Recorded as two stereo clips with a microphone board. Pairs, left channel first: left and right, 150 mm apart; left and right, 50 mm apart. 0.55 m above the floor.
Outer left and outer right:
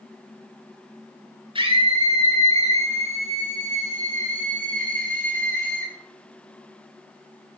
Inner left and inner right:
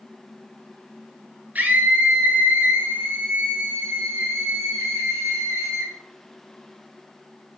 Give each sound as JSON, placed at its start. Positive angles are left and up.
{"t": 1.6, "sound": "a scream", "side_deg": -35, "distance_m": 6.5}